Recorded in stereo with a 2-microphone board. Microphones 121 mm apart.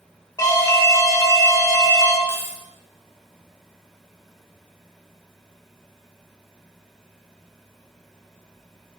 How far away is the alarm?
About 1.2 m.